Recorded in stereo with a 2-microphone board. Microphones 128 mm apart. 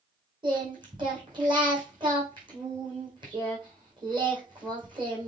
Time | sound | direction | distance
0.4 | singing | 35° right (ahead or behind) | 4 m